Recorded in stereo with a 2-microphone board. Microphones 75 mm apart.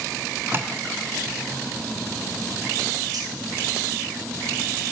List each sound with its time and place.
0.5 s tapping: 30° right (ahead or behind), 0.9 m
3.1 s cutlery clinking: 65° right (ahead or behind), 2.5 m